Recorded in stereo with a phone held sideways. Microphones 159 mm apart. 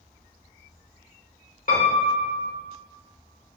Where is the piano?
60° left (ahead or behind), 0.9 m.